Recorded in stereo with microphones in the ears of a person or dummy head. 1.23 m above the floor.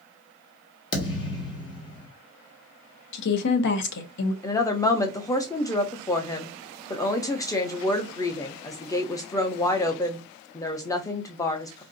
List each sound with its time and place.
0.9 s a thud: 30° left (ahead or behind), 1.4 m
3.1 s a woman speaking: 70° left (ahead or behind), 0.7 m
4.4 s a woman speaking: 15° left (ahead or behind), 0.6 m